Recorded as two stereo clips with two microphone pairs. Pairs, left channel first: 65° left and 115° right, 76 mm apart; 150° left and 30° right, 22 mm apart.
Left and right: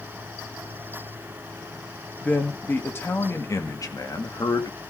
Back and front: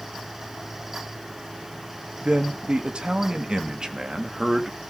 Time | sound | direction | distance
2.2 | a man speaking | 5° right | 2 m